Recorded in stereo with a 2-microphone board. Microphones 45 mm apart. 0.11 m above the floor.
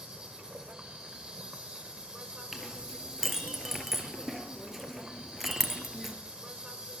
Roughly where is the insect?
Right.